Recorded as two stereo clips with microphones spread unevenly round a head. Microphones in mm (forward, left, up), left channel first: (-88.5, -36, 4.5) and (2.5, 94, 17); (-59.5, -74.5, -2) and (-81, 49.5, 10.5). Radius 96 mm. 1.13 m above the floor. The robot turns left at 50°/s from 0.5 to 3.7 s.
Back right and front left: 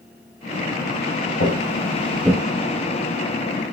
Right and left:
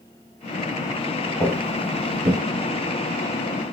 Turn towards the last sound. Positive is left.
turn(degrees=50)